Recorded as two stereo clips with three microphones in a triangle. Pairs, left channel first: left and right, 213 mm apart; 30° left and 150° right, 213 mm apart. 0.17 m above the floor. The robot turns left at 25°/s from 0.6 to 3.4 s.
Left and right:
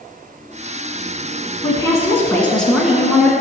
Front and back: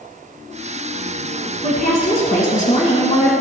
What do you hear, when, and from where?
1.6 s a woman speaking: 30° left, 1.4 m; by 3.3 s 10° right, 1.4 m